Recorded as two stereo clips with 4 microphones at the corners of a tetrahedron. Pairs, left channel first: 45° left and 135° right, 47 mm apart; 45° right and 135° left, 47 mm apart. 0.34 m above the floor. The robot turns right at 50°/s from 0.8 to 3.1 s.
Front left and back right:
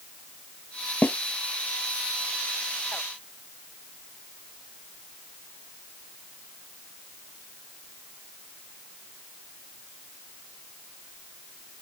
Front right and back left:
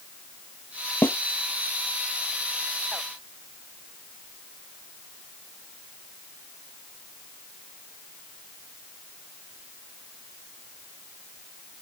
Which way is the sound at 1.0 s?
10° right.